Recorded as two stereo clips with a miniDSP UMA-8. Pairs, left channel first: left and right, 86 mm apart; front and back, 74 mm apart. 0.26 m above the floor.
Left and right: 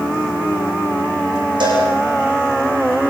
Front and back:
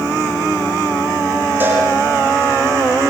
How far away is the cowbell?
About 9 m.